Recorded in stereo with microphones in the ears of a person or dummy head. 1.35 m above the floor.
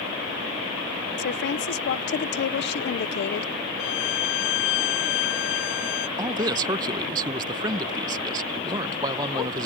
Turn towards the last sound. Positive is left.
turn(degrees=-20)  # may be behind; listen again after turning